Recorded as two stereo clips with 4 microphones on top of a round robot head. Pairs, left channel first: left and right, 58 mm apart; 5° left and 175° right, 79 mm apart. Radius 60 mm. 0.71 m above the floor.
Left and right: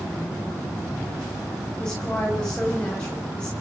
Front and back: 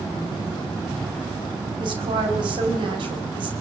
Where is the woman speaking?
170° left, 5.5 m.